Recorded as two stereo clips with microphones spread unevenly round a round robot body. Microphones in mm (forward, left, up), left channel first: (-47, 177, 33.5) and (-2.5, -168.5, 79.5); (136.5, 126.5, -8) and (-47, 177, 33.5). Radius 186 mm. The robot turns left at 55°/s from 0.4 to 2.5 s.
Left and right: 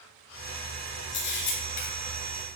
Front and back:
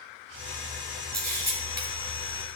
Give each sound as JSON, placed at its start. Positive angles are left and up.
{"t": 1.1, "sound": "a camera shutter", "azimuth_deg": 135, "distance_m": 3.0}